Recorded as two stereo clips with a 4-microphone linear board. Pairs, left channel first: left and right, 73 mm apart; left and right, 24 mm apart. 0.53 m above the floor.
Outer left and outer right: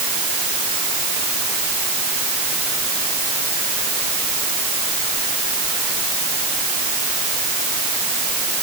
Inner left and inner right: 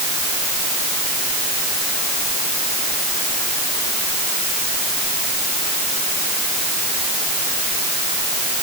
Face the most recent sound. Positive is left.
No sound to turn to.